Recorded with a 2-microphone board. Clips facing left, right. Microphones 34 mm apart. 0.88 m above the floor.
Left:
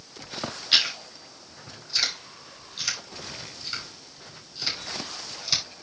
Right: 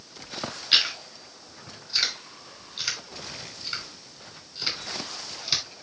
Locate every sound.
0.7 s chewing: 10° right (ahead or behind), 5.5 m